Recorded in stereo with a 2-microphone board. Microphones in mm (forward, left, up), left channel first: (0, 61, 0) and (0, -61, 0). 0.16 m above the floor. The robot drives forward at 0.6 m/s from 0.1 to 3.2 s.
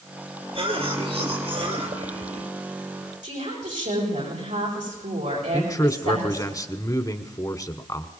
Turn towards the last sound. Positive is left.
turn(degrees=30)  # may be behind; listen again after turning